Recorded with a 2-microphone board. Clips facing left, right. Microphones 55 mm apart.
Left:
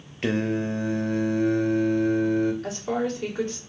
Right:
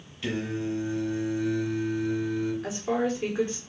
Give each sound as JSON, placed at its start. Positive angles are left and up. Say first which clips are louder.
{"t": 0.2, "sound": "singing", "louder": "left 5 dB", "side_deg": 50, "distance_m": 0.6}
{"t": 2.6, "sound": "a woman speaking", "louder": "even", "side_deg": -10, "distance_m": 2.0}